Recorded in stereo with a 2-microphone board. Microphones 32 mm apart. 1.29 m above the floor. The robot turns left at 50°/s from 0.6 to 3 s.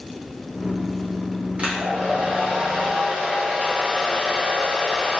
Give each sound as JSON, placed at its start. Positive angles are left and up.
{"t": 1.6, "sound": "a hair dryer", "azimuth_deg": -55, "distance_m": 0.7}